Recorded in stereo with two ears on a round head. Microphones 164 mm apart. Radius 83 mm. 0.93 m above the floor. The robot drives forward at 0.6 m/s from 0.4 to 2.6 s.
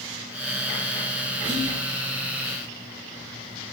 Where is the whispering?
40° right (ahead or behind), 3 m; by 1.8 s 45° right (ahead or behind), 2.5 m.